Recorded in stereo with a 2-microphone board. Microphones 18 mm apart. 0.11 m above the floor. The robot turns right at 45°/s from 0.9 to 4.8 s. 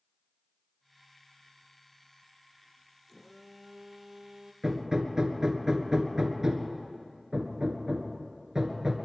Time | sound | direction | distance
3.1 | a phone buzzing | 170° left | 0.8 m
4.6 | hammering | 35° right (ahead or behind) | 1.5 m